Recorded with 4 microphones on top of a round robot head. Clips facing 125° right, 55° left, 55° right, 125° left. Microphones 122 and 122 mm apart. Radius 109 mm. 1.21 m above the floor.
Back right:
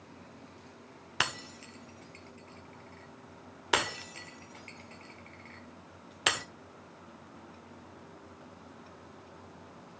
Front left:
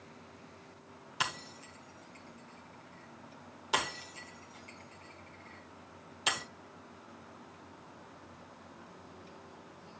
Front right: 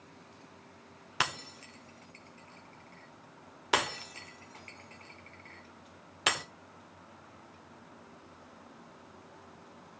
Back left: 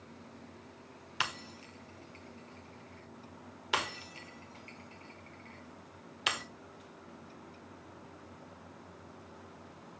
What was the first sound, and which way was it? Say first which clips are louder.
Breaking glass: back right 2 dB, front right 4 dB; 100° right.